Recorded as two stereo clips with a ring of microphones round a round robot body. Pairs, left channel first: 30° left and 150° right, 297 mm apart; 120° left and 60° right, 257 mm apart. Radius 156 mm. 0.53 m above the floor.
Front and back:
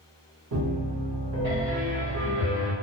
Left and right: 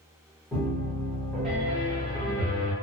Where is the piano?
150° right, 1.6 m.